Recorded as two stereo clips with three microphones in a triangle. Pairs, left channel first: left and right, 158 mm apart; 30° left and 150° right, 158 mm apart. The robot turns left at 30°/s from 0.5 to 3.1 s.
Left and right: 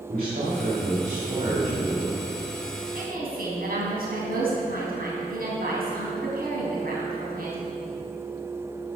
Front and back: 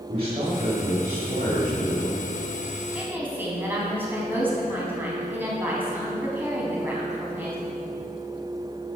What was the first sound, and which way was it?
A man speaking, 100° right.